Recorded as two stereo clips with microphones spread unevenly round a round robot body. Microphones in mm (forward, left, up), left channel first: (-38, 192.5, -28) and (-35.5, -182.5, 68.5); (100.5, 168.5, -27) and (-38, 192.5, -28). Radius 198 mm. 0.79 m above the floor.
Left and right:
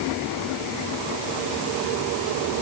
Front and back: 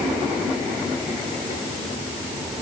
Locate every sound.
Only background noise.